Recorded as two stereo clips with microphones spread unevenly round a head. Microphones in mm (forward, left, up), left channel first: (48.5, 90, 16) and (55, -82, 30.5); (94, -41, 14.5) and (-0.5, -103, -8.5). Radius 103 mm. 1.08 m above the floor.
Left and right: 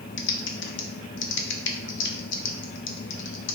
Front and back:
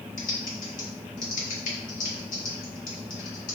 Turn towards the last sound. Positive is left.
turn(degrees=80)